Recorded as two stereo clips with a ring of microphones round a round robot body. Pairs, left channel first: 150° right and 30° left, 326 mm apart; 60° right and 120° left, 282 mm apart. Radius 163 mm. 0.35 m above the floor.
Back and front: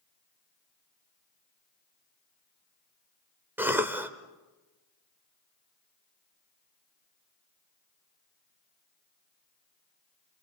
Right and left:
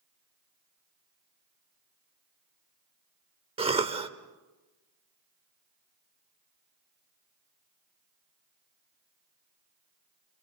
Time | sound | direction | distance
3.6 | a cough | 100° left | 0.8 m